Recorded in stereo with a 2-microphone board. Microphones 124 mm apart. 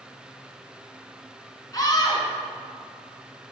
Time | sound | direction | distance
1.7 | a scream | 35° left (ahead or behind) | 1.4 m